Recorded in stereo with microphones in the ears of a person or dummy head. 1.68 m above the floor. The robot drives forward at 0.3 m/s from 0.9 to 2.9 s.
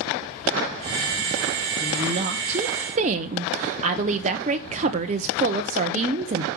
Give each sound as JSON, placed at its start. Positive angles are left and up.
{"t": 1.8, "sound": "a woman speaking", "side_deg": -30, "distance_m": 1.1}